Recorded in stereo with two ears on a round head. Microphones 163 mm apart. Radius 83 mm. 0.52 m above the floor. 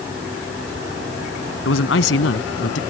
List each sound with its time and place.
1.6 s a man speaking: 70° left (ahead or behind); by 2.8 s 75° left (ahead or behind)